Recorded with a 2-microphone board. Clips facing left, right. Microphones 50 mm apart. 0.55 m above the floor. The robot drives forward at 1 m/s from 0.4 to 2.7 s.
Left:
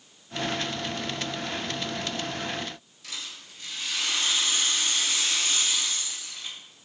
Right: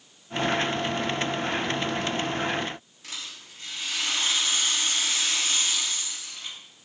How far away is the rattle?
About 1.7 m.